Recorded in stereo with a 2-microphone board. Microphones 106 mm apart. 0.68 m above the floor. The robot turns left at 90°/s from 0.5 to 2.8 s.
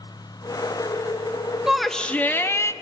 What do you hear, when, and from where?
1.7 s a shout: 5° right (ahead or behind), 1.0 m; by 2.7 s 25° left (ahead or behind), 1.0 m